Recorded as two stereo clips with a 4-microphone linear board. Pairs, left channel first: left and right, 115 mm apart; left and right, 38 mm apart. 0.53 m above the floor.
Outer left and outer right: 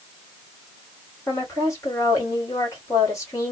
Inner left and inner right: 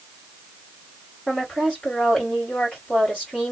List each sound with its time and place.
1.3 s a woman speaking: 30° left (ahead or behind), 1.6 m